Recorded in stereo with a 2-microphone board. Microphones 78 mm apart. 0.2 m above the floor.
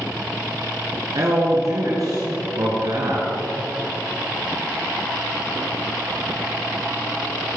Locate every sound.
1.1 s a man speaking: 50° right (ahead or behind), 2 m